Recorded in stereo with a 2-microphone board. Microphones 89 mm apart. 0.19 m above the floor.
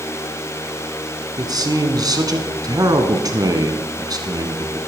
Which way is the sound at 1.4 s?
50° right (ahead or behind).